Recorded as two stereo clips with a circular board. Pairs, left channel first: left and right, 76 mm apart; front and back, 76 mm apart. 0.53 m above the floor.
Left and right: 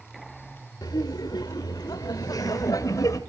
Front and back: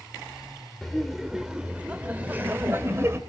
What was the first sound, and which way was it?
Laughter, 85° left.